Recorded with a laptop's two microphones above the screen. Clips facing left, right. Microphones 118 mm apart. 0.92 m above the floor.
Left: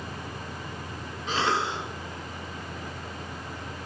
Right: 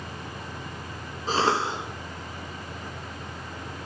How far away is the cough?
About 1.4 m.